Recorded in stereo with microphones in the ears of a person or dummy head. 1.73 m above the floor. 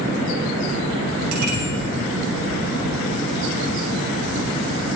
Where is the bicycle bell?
50° right (ahead or behind), 6.5 m.